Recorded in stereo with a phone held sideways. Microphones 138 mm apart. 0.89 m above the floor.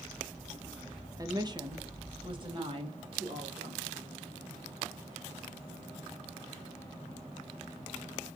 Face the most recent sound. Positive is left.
turn(degrees=-40)  # may be behind; listen again after turning